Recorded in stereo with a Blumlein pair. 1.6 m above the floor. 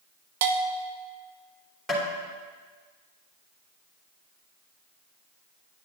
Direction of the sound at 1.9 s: Straight ahead.